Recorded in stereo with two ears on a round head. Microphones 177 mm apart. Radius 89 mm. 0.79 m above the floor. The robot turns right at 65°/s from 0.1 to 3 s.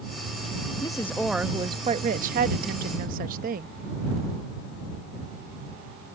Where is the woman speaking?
150° left; by 3.7 s 65° right.